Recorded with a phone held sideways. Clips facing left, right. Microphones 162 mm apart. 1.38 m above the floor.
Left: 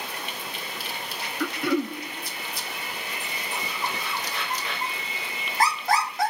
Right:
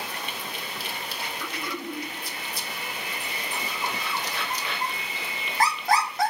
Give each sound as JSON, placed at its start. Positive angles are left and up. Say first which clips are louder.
{"t": 1.4, "sound": "throat clearing", "louder": "left 12 dB", "side_deg": 65, "distance_m": 1.2}